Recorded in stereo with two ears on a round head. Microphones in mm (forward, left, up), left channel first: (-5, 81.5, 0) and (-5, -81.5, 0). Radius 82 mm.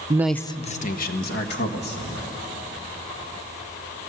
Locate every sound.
0.1 s a man speaking: 25° right (ahead or behind), 0.6 m; by 2.3 s 65° left (ahead or behind), 2.5 m